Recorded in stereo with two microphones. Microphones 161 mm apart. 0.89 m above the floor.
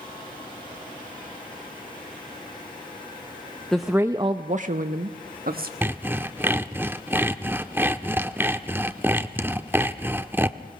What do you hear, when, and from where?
3.7 s a woman speaking: 5° left (ahead or behind), 0.7 m; by 5.7 s 65° right (ahead or behind), 1.3 m
5.8 s sawing: 15° right (ahead or behind), 0.6 m